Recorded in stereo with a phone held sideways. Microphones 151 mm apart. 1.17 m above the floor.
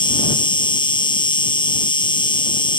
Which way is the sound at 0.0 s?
30° left (ahead or behind).